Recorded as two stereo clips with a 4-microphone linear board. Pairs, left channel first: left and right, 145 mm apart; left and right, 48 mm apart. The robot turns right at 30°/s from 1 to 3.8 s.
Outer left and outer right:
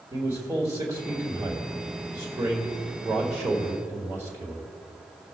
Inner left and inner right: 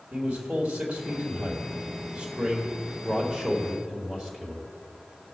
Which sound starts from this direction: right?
A man speaking, at 0.1 s.